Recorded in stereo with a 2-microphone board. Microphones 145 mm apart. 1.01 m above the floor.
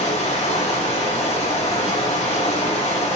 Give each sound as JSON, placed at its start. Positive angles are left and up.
{"t": 0.0, "sound": "running water", "side_deg": 55, "distance_m": 8.0}